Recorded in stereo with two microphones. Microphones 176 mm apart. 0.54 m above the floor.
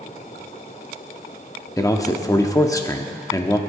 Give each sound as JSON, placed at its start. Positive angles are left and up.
{"t": 1.8, "sound": "a man speaking", "side_deg": 20, "distance_m": 0.8}